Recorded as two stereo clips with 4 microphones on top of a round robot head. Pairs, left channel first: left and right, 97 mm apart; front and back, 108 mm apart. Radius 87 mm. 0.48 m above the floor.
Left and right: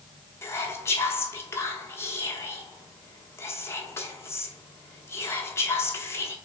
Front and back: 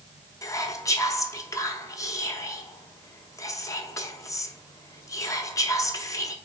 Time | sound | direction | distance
0.4 | whispering | 40° left | 1.0 m